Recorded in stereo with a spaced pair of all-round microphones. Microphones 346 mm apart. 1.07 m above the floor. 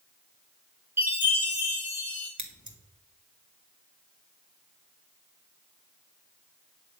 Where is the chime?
5° right (ahead or behind), 4.5 m.